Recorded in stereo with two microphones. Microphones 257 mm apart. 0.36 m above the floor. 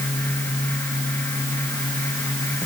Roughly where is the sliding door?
I don't hear a sliding door.